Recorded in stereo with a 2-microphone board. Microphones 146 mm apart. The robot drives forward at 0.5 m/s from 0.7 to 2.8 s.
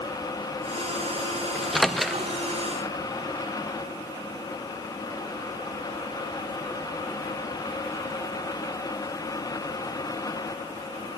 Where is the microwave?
Centre (ahead or behind), 1.1 m.